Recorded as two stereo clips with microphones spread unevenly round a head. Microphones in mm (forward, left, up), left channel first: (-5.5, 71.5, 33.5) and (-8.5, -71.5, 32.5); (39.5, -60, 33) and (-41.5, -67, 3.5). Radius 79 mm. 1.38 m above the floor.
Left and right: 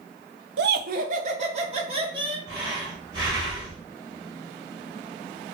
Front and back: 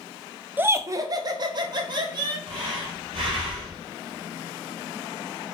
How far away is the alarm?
No alarm in this recording.